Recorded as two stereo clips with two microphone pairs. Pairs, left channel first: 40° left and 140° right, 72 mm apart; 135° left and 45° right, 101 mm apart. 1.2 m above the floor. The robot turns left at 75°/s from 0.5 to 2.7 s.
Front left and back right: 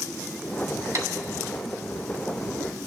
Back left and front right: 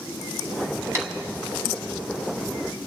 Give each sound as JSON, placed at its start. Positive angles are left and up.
{"t": 0.9, "sound": "tapping", "azimuth_deg": -100, "distance_m": 1.8}